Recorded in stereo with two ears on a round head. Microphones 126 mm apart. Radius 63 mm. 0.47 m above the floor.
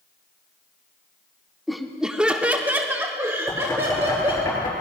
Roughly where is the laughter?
Centre.